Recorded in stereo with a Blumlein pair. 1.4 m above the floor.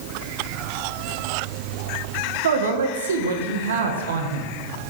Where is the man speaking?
65° right, 1.5 m.